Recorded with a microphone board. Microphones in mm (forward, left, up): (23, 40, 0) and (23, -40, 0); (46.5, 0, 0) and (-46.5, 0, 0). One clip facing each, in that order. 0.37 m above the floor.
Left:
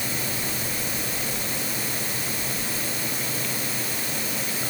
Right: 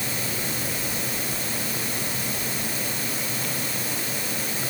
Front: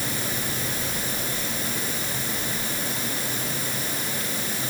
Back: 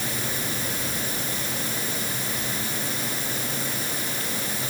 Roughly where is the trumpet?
I don't hear a trumpet.